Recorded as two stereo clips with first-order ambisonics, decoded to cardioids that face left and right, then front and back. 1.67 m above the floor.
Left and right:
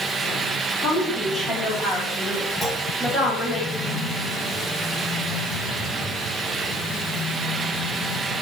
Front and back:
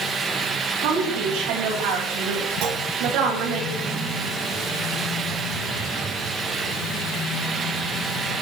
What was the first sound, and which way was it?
A woman speaking, 160° left.